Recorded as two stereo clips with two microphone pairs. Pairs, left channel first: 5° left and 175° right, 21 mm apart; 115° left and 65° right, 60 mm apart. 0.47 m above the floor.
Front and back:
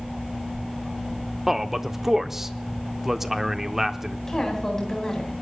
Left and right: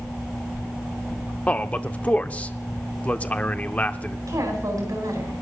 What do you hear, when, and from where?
1.5 s a man speaking: 130° left, 0.7 m
4.3 s a woman speaking: 55° right, 4 m